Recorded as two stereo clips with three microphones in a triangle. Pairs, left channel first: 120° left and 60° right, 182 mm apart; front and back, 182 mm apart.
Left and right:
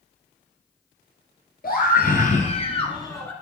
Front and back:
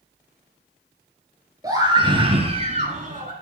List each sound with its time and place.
1.6 s a scream: 115° left, 2 m; by 3.3 s 165° right, 1.7 m